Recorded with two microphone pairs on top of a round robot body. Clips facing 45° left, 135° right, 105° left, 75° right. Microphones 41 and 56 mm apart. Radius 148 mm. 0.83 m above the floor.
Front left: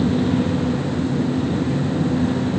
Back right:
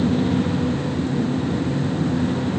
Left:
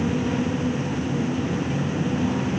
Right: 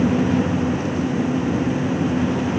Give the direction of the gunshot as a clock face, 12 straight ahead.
I don't hear a gunshot.